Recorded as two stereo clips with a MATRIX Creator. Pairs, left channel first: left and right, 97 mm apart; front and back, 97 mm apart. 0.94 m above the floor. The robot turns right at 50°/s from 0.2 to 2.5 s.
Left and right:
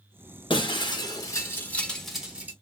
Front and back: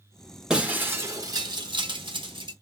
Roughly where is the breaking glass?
Left.